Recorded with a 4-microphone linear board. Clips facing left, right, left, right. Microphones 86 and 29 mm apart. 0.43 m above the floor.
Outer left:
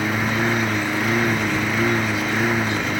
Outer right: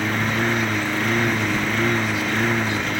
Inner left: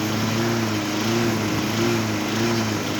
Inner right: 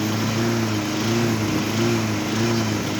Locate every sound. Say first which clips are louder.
0.0 s a lawn mower: outer left 1 dB, even; 5° left (ahead or behind)